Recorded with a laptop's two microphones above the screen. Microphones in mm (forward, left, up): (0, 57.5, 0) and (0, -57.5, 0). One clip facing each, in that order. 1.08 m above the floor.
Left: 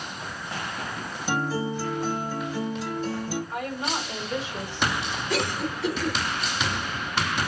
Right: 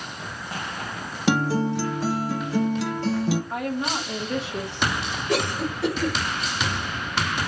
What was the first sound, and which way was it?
A guitar, 75° right (ahead or behind).